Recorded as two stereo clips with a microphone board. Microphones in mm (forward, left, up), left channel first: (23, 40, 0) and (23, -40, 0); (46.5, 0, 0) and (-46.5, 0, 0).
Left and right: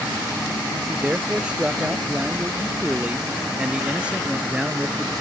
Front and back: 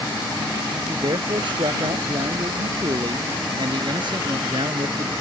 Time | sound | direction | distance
0.9 | a man speaking | 165° right | ?